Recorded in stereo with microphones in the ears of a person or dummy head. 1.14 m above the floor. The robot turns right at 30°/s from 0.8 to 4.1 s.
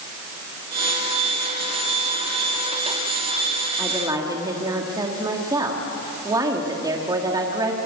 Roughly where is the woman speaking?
Centre.